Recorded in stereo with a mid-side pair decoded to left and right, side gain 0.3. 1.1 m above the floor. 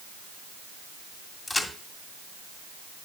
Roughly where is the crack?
Ahead left.